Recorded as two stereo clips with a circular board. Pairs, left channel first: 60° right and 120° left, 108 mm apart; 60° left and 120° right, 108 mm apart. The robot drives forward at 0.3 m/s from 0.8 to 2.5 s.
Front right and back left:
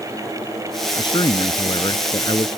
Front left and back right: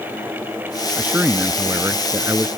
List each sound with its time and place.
1.0 s a man speaking: 45° right; by 2.5 s 60° right